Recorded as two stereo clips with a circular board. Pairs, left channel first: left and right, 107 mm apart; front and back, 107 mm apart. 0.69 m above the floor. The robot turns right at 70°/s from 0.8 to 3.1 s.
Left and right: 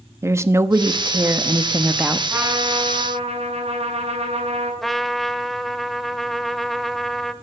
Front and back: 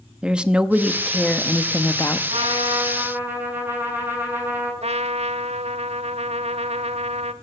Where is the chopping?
I don't hear chopping.